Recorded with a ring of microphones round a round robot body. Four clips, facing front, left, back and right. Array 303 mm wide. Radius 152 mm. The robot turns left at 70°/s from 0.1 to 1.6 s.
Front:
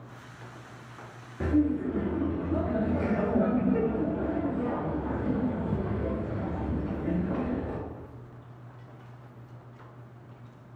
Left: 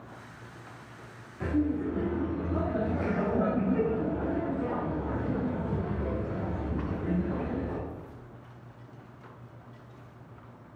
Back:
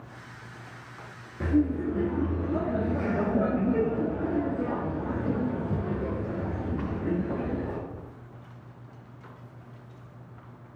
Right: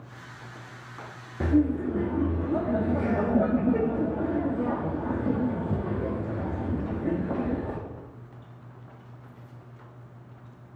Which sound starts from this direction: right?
Laughter, at 1.4 s.